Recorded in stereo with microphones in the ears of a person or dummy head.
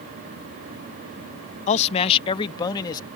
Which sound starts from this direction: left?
A man speaking, at 1.7 s.